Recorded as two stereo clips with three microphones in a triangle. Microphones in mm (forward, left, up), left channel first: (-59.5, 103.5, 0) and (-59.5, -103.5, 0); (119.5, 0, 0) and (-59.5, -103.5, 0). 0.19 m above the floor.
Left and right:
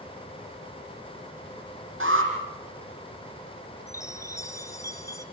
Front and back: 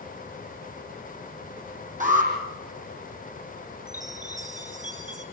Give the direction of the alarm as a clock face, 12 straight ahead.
3 o'clock.